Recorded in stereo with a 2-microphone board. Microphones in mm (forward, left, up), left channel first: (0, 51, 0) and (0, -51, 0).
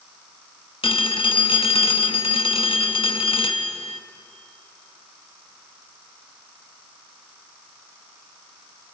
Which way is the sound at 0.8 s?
60° left (ahead or behind).